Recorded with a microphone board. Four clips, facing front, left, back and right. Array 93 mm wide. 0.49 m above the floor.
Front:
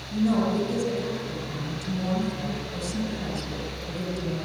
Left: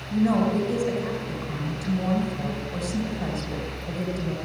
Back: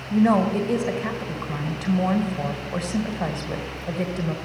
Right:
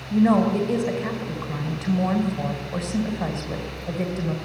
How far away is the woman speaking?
About 2.5 m.